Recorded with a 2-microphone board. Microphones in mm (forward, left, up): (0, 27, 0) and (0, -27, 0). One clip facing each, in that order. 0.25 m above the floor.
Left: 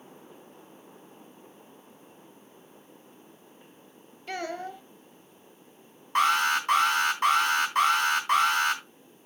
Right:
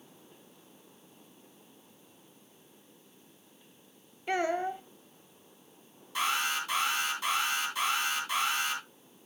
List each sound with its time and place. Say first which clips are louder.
4.3 s a child speaking: right 5 dB; 20° right (ahead or behind), 0.5 m
6.2 s an alarm: left 8 dB; 50° left (ahead or behind), 3 m